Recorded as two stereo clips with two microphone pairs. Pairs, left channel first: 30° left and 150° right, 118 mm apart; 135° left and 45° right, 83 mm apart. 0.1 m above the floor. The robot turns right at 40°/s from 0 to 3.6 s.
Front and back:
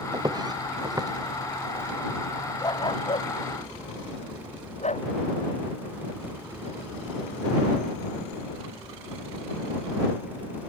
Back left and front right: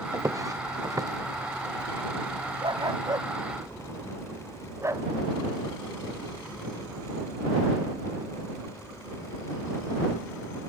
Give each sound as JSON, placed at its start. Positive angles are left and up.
{"t": 0.1, "sound": "footsteps", "azimuth_deg": -95}
{"t": 2.6, "sound": "a dog barking", "azimuth_deg": -30}